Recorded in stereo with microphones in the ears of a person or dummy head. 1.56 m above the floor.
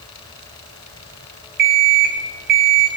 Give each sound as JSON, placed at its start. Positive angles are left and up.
{"t": 1.6, "sound": "an alarm clock", "side_deg": -45, "distance_m": 1.0}